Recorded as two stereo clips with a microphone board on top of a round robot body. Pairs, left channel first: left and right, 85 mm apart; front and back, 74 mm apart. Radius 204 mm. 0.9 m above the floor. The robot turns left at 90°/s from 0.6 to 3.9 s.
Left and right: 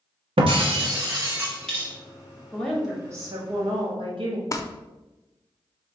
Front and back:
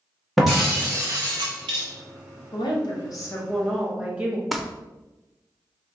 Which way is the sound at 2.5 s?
20° left.